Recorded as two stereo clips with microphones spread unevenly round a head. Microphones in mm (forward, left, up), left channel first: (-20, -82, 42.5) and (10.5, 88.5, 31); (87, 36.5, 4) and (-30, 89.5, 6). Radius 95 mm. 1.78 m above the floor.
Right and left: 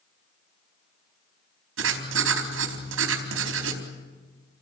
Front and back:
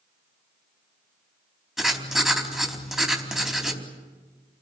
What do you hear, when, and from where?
1.8 s writing: 70° left, 4 m